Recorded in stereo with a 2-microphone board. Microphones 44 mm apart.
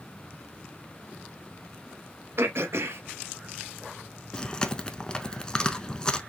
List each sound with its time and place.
2.4 s throat clearing: 70° right (ahead or behind), 0.7 m
4.3 s chewing: 20° left (ahead or behind), 0.6 m